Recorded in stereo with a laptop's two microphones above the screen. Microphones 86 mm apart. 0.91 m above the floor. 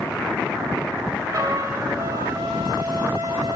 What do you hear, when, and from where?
1.3 s a trumpet: 35° right (ahead or behind), 5.5 m